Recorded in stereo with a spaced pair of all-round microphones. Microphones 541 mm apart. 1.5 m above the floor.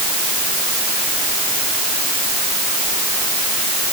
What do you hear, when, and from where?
Only background noise.